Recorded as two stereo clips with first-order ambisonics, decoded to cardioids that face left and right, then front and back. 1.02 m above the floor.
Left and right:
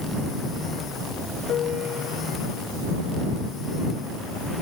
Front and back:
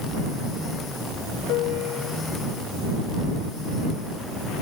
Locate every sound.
1.5 s a piano: 35° left